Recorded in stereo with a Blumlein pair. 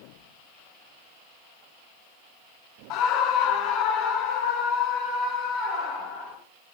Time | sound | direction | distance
2.9 | a scream | 40° left | 0.7 m